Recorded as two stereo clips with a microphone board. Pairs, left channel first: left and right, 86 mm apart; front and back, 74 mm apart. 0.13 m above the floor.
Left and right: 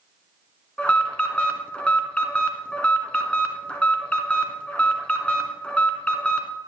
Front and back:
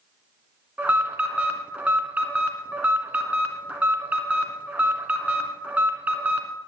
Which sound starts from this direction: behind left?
An alarm, at 0.8 s.